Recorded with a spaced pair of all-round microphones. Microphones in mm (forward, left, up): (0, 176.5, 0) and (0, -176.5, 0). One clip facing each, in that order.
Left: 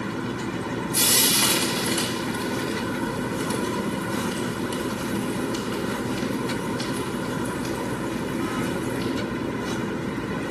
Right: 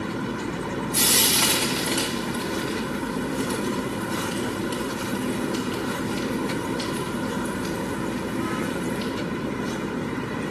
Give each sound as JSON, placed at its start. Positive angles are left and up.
{"t": 0.9, "sound": "frying", "side_deg": -75, "distance_m": 2.0}